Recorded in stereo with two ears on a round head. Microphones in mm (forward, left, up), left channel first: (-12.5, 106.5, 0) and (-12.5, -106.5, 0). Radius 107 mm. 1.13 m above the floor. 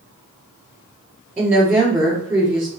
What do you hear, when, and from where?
1.4 s a woman speaking: 5° right (ahead or behind), 2.5 m